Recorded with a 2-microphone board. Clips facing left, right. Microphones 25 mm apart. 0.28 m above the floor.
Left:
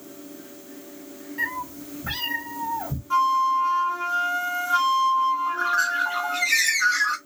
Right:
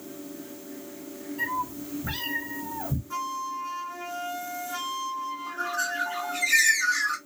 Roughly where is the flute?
Left.